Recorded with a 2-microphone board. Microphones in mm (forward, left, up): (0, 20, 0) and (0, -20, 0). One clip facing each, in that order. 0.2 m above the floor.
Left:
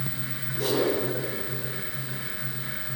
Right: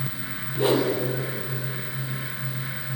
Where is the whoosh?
30° right (ahead or behind), 5 m.